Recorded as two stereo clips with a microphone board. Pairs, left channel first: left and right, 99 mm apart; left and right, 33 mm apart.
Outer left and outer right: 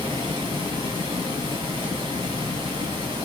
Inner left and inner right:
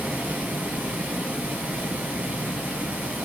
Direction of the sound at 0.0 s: 60° right (ahead or behind).